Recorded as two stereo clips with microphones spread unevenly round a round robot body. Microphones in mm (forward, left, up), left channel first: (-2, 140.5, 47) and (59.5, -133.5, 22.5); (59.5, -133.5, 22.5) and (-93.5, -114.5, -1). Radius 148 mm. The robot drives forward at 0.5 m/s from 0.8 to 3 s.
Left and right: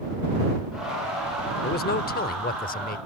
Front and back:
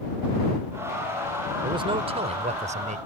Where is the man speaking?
145° left; by 3.0 s 160° left.